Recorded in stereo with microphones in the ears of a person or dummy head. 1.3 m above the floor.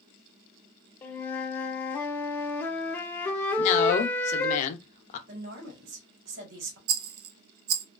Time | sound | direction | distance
1.0 | a flute | 10° left (ahead or behind) | 0.6 m
3.6 | a man speaking | 45° left (ahead or behind) | 0.7 m
5.3 | a woman speaking | 60° right (ahead or behind) | 1.3 m
6.9 | a rattle | 75° right (ahead or behind) | 0.6 m